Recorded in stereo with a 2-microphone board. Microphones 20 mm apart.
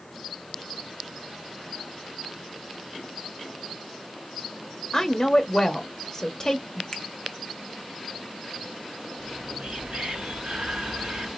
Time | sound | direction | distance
4.9 | a woman speaking | 30° left (ahead or behind) | 1.1 m
6.9 | a finger snap | 35° left (ahead or behind) | 1.0 m
9.2 | whispering | 65° right (ahead or behind) | 2.5 m